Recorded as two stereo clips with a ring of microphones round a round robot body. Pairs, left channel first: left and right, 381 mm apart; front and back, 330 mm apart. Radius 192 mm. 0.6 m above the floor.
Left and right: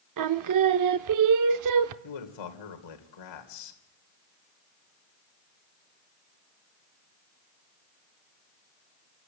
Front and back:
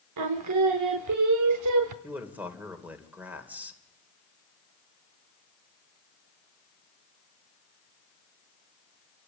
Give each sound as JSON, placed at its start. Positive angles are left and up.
{"t": 0.2, "sound": "singing", "azimuth_deg": -135, "distance_m": 0.7}
{"t": 2.0, "sound": "a man speaking", "azimuth_deg": 95, "distance_m": 2.5}